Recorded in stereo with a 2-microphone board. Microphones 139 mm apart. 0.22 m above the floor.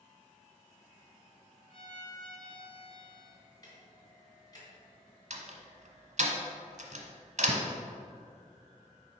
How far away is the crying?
I don't hear crying.